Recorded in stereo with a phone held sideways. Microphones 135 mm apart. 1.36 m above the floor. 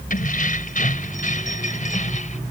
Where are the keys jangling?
80° left; by 2.4 s 65° left (ahead or behind).